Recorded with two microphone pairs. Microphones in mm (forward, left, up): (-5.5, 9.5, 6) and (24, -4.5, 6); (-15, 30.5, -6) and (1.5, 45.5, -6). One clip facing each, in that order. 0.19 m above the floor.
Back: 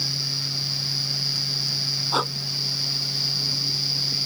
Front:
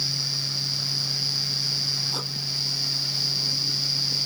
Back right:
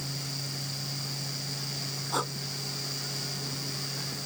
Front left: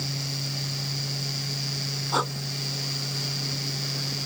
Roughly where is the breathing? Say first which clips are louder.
Back 7 dB, front left 5 dB; behind left.